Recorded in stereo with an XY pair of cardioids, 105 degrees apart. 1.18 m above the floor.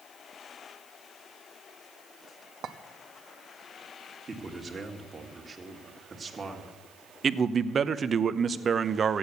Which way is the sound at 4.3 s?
25° right.